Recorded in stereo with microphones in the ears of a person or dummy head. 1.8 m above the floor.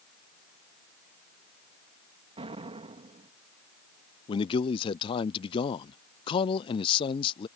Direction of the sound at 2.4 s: 30° right (ahead or behind).